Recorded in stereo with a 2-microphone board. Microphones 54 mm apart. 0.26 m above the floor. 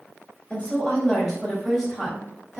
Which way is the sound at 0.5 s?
20° left (ahead or behind).